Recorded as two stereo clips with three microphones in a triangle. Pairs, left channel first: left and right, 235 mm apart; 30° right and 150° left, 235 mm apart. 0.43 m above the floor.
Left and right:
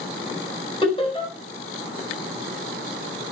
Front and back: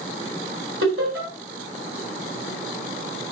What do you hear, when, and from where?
0.8 s laughter: 155° left, 4 m